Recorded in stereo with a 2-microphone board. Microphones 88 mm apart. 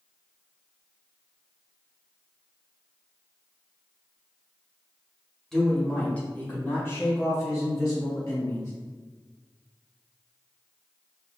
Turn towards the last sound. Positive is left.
turn(degrees=35)  # may be behind; listen again after turning